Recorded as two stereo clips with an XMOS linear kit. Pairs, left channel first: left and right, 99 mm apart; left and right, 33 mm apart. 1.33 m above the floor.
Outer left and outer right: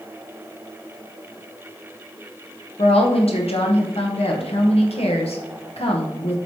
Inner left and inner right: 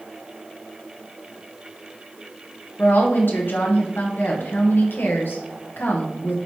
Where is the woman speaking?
75° left (ahead or behind), 1.2 m.